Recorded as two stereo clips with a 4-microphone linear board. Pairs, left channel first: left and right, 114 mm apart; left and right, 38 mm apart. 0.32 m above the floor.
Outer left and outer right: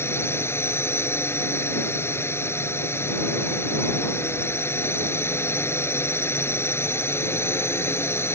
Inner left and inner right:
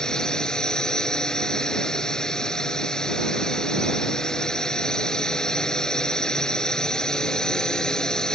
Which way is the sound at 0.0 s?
20° left (ahead or behind).